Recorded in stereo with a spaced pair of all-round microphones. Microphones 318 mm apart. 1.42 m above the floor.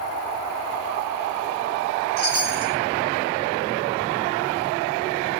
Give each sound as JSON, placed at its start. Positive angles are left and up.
{"t": 2.2, "sound": "a chime", "side_deg": 30, "distance_m": 1.7}